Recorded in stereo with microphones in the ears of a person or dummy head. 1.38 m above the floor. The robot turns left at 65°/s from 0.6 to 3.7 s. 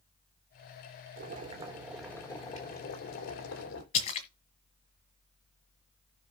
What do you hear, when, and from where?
1.2 s boiling: 120° right, 3 m; by 3.8 s 75° left, 3 m
3.9 s a splash: 40° left (ahead or behind), 1.6 m